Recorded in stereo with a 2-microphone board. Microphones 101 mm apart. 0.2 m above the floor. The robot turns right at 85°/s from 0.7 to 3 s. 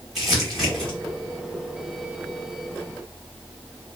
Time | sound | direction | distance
0.1 | crumpling | centre (ahead or behind) | 1.1 m